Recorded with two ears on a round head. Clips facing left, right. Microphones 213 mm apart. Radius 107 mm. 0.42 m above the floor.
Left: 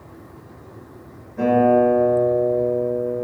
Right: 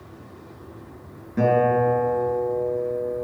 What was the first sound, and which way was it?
A guitar, 70° right (ahead or behind).